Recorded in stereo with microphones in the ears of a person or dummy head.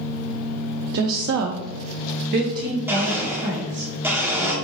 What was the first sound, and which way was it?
A woman speaking, 60° right (ahead or behind).